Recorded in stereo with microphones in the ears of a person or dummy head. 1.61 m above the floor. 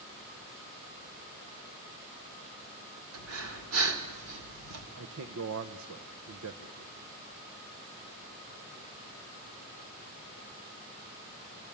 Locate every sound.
3.1 s breathing: 75° right (ahead or behind), 3 m
5.0 s a man speaking: 75° right (ahead or behind), 1.2 m